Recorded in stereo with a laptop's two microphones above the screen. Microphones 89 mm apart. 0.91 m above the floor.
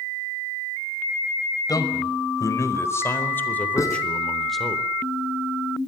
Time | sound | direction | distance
1.7 | a man speaking | 45° left (ahead or behind) | 5.5 m
3.8 | writing | 35° left (ahead or behind) | 5.5 m